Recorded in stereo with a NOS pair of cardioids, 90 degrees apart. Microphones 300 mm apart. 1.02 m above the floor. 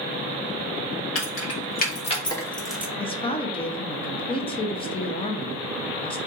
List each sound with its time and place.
1.1 s keys jangling: 45° left, 1.3 m; by 2.9 s 10° right, 1.1 m
3.0 s a woman speaking: 20° left, 0.7 m